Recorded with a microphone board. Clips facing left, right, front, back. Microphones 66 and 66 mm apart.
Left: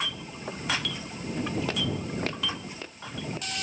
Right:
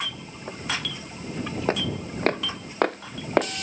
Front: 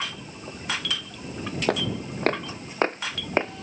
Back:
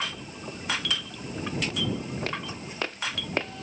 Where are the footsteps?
30° right; by 3.6 s 70° right.